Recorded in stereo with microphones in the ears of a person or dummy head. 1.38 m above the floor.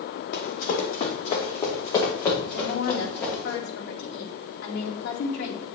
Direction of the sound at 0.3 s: 45° left (ahead or behind).